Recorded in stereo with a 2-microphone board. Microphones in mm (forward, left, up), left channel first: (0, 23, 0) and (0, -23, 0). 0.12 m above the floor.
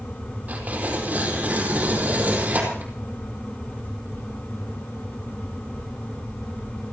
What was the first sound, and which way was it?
Tearing paper, 35° right (ahead or behind).